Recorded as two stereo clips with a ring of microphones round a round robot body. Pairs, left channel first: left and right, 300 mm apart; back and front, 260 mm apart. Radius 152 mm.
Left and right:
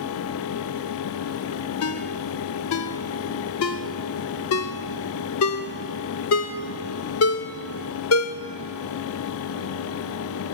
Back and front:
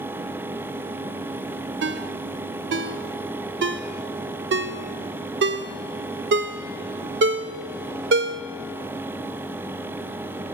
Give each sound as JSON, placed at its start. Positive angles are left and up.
{"t": 1.8, "sound": "a ringtone", "azimuth_deg": 45, "distance_m": 0.8}